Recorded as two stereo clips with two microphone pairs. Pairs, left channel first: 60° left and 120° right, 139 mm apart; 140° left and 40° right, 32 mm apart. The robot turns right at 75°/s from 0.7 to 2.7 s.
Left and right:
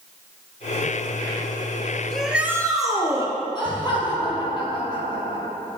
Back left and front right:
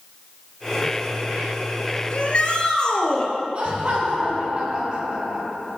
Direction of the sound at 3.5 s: 10° left.